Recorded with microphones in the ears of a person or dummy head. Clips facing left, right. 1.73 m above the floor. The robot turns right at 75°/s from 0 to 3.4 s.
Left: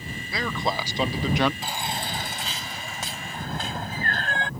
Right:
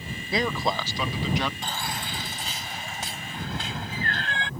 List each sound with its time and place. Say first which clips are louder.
0.3 s a man speaking: right 2 dB; 25° right; by 1.5 s 65° left
1.6 s a baby crying: left 2 dB; 5° left; by 4.5 s 140° left